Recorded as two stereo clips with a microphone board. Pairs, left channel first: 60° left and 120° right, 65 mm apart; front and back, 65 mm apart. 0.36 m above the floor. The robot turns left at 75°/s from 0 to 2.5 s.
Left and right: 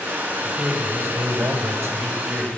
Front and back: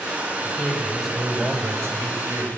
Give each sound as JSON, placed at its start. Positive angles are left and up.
{"t": 0.4, "sound": "a man speaking", "azimuth_deg": -40, "distance_m": 2.0}